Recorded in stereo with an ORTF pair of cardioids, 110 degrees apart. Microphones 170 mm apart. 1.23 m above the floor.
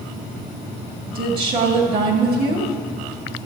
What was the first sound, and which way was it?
A woman speaking, 65° right.